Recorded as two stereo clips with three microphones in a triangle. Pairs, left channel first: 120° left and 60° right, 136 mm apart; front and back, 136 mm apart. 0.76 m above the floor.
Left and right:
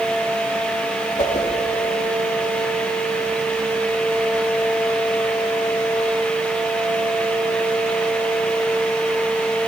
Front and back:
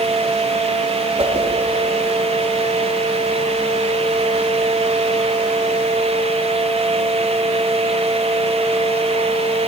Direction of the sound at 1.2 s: 140° left.